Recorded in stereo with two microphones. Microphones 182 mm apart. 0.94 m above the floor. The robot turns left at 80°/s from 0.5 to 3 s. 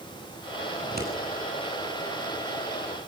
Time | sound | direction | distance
0.8 | scissors | 40° right (ahead or behind) | 7 m